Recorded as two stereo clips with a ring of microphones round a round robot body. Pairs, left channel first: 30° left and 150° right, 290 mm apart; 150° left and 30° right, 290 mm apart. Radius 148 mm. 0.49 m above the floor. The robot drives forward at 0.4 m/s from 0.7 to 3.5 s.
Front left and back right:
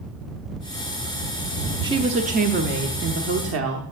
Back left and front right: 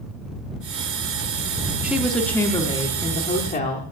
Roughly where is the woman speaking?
Right.